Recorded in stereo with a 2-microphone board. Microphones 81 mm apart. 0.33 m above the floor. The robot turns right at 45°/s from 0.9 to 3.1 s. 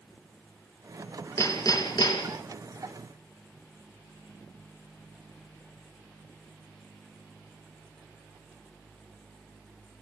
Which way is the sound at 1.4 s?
35° left.